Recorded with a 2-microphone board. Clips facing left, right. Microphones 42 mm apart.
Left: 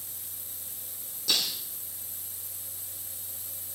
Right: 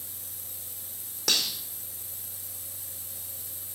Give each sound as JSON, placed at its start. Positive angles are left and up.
{"t": 1.3, "sound": "cutlery clinking", "side_deg": -65, "distance_m": 5.0}